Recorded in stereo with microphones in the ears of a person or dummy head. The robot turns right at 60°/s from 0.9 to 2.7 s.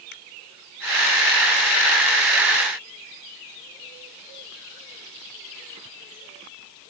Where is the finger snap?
65° left (ahead or behind).